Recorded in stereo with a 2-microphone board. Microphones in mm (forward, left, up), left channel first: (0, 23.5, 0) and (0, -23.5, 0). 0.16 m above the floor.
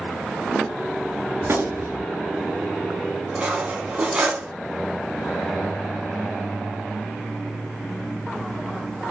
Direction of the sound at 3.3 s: 25° right (ahead or behind).